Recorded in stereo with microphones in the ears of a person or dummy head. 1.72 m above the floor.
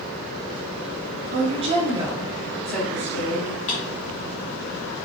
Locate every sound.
1.3 s a woman speaking: 40° right (ahead or behind), 1.3 m; by 3.6 s 25° left (ahead or behind), 1.7 m
3.7 s a drawer: 35° left (ahead or behind), 1.2 m